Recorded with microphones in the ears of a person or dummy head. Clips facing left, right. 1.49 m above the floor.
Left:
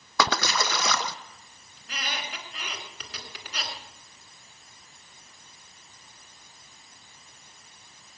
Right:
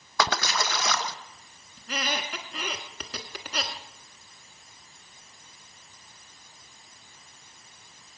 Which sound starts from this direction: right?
A squeak, at 1.8 s.